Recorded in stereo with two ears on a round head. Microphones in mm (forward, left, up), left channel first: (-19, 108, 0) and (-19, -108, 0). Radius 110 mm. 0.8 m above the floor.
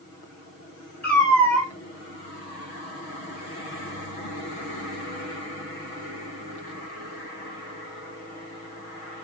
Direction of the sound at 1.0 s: 5° left (ahead or behind).